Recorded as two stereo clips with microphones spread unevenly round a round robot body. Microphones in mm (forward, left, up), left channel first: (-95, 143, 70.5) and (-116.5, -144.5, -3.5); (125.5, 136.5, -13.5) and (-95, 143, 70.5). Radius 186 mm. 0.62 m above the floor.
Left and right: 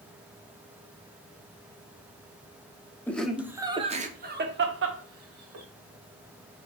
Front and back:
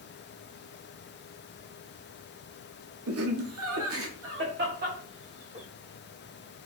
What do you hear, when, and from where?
3.1 s laughter: straight behind, 1.0 m; by 5.7 s 100° right, 1.5 m